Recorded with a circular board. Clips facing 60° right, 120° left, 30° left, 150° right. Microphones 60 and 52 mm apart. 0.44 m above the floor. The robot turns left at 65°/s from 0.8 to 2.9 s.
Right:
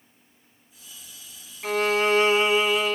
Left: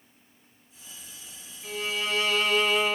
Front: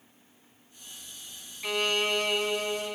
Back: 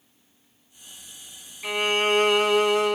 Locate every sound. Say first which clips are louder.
1.6 s a violin: right 10 dB, back 5 dB; 75° right, 1.0 m; by 3.0 s 160° right, 1.0 m